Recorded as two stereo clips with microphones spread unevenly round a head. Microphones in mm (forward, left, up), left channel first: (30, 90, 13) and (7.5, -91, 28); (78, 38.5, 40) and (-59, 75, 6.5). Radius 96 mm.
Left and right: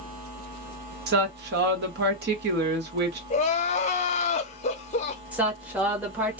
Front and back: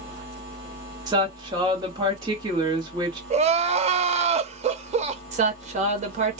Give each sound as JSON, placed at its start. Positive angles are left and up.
{"t": 1.1, "sound": "a woman speaking", "azimuth_deg": -130, "distance_m": 1.2}
{"t": 3.3, "sound": "crying", "azimuth_deg": 135, "distance_m": 0.6}
{"t": 5.3, "sound": "a woman speaking", "azimuth_deg": 180, "distance_m": 1.0}